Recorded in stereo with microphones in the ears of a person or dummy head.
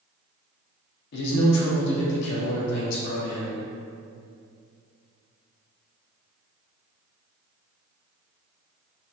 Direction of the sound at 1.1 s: 60° left (ahead or behind).